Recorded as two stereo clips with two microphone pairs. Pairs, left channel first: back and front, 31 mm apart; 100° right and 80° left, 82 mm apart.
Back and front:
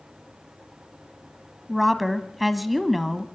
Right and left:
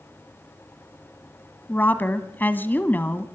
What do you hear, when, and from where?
1.7 s a woman speaking: 90° right, 1.1 m